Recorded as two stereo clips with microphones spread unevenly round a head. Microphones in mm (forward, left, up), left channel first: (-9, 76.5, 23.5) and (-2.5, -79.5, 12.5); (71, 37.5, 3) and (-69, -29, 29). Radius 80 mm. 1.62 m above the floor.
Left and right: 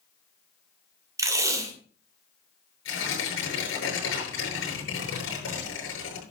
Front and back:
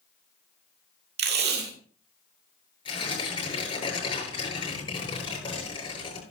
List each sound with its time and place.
1.2 s tape being pulled: 160° right, 2.5 m
2.9 s tearing paper: 85° left, 8.5 m